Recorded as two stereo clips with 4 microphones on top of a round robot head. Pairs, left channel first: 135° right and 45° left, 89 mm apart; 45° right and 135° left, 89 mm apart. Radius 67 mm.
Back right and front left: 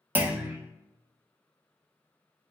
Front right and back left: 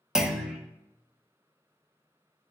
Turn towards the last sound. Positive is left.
turn(degrees=65)